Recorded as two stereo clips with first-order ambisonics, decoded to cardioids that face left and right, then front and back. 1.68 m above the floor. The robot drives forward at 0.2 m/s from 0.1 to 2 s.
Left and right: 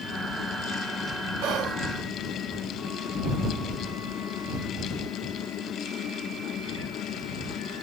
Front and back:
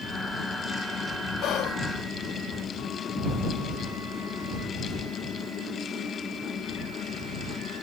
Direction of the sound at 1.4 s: 60° right.